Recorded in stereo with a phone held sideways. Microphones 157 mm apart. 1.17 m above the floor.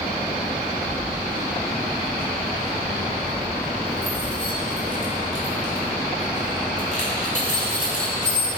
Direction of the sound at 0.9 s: 65° right (ahead or behind).